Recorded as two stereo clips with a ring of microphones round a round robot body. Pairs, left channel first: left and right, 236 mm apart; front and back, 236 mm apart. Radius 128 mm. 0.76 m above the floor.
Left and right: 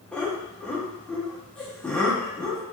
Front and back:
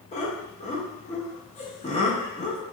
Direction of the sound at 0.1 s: 10° left.